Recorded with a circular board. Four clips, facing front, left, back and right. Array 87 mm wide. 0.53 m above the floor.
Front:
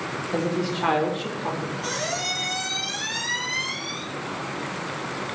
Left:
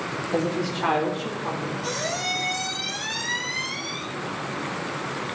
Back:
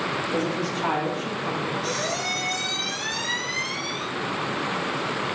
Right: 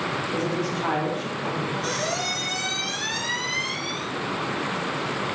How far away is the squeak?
About 2.5 m.